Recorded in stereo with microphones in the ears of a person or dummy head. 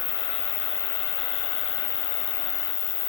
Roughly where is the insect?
Left.